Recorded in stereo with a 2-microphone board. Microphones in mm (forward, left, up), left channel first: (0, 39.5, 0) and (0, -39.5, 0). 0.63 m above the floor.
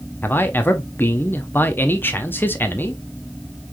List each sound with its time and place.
0.2 s a man speaking: 25° left (ahead or behind), 0.7 m